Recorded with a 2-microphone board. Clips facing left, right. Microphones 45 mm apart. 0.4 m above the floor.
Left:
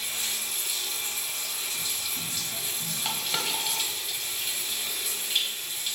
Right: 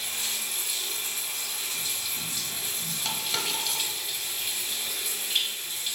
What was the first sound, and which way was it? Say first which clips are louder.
Running water: even; centre (ahead or behind).